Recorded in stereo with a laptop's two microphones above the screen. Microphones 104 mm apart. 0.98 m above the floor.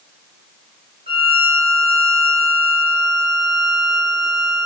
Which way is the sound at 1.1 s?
85° right.